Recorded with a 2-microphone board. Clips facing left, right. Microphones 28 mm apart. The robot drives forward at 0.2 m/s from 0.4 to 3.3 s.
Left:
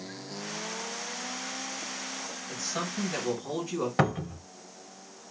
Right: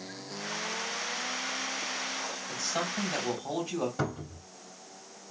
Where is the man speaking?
20° right (ahead or behind), 2 m.